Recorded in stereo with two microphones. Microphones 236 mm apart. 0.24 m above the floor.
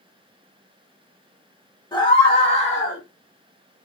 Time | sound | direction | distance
1.9 | a scream | 20° left (ahead or behind) | 1.2 m